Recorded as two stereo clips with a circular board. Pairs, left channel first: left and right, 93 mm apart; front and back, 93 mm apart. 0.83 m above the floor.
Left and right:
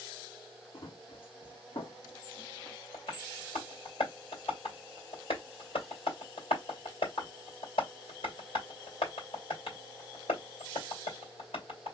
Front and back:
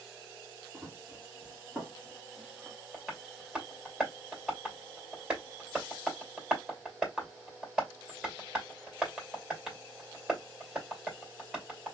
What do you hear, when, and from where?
0.7 s running footsteps: 110° left, 3 m; by 2.8 s 90° left, 2.5 m
2.9 s tapping: 100° left, 3 m